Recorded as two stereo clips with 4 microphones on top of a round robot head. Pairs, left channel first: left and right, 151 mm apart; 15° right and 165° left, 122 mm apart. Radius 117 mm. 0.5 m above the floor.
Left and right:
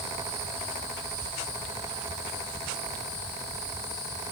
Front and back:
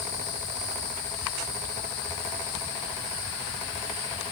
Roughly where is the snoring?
I don't hear snoring.